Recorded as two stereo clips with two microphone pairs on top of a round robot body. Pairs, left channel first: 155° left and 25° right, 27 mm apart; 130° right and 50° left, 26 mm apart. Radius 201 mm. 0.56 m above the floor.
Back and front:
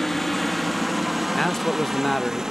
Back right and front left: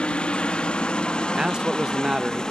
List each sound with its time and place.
0.0 s a helicopter: 130° right; by 2.5 s 90° right
1.4 s a man speaking: 90° left